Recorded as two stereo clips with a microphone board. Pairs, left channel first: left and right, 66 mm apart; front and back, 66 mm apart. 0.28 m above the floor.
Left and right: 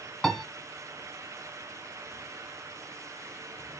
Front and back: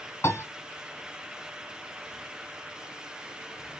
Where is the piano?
10° left, 1.5 m.